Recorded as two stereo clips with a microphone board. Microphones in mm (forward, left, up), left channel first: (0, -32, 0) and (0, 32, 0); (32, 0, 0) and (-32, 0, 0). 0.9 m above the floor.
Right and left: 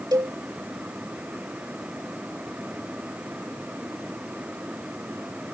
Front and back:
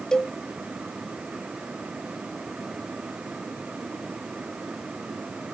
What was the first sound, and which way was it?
A cowbell, 80° left.